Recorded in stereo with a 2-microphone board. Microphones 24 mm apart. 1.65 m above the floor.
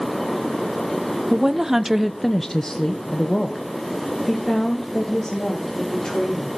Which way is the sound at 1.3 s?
25° right (ahead or behind).